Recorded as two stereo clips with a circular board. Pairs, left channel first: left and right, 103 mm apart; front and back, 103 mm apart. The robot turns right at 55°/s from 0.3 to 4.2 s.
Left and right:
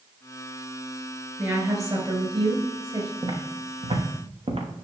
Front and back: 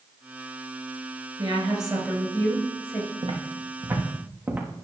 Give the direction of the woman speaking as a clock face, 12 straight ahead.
5 o'clock.